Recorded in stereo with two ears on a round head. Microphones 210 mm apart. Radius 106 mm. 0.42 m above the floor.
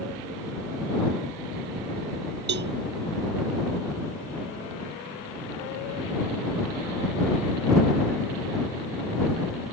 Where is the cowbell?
50° right (ahead or behind).